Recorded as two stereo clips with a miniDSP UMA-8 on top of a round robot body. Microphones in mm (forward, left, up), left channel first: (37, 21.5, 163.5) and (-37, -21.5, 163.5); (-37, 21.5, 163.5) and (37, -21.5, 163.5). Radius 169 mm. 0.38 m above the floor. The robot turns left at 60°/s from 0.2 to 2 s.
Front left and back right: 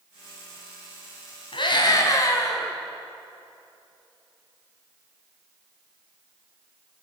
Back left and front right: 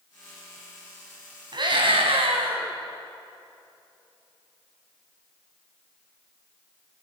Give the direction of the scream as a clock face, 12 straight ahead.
12 o'clock.